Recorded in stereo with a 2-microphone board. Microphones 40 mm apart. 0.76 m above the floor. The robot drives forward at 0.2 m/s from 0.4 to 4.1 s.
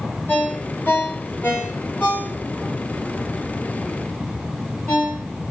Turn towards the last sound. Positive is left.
turn(degrees=40)  # may be behind; listen again after turning